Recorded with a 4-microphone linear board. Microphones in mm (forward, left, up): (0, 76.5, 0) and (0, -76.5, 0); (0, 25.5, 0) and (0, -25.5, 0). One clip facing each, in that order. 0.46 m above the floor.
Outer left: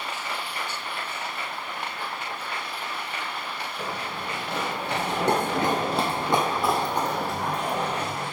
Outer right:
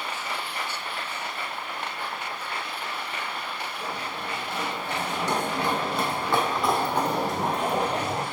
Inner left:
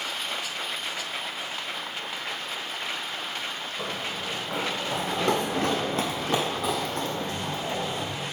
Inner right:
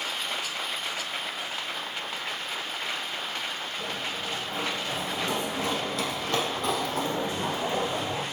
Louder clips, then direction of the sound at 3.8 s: Outer left 2 dB, inner left 2 dB; 80° left.